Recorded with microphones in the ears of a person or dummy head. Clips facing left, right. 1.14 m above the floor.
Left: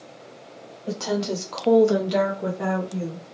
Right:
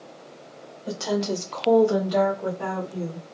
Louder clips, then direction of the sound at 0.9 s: Even; 10° right (ahead or behind).